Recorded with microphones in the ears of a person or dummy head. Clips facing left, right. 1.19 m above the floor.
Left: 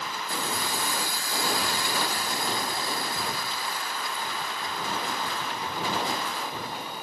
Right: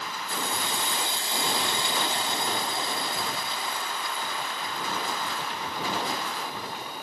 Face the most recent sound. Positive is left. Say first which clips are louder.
# even
turn(degrees=-20)  # may be behind; listen again after turning